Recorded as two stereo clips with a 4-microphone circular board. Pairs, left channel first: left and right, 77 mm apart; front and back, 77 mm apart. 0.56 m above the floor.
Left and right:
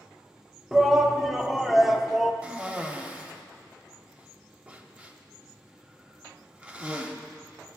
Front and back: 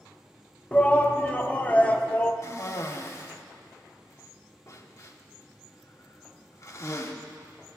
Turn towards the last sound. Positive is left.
turn(degrees=-20)